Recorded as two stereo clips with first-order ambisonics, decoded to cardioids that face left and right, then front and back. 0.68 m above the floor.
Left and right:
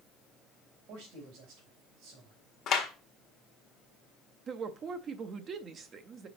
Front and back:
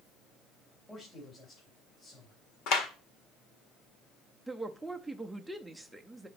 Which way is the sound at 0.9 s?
75° right.